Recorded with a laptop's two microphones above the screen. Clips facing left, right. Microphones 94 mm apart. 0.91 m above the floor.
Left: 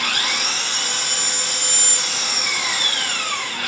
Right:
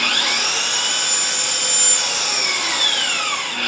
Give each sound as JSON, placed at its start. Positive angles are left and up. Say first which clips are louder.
{"t": 0.0, "sound": "an engine running", "louder": "right 2 dB", "side_deg": -65, "distance_m": 5.0}